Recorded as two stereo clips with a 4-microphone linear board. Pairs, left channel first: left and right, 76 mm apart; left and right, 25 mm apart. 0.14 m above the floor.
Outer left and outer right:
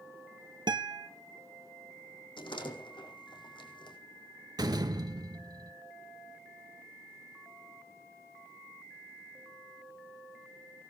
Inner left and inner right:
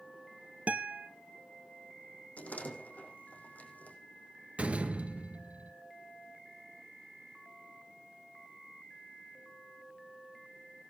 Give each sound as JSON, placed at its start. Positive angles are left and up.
{"t": 0.7, "sound": "a guitar", "side_deg": -65, "distance_m": 1.2}
{"t": 2.4, "sound": "a door slam", "side_deg": 80, "distance_m": 4.5}
{"t": 4.6, "sound": "a door slam", "side_deg": -55, "distance_m": 1.7}